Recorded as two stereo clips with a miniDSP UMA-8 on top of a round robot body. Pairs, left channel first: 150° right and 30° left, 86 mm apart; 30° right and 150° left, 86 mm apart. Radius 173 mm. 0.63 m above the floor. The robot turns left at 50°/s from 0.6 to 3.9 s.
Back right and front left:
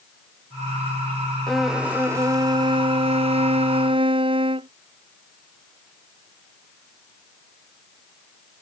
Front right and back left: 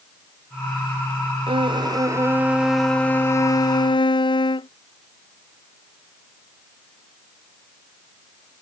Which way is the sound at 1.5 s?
125° left.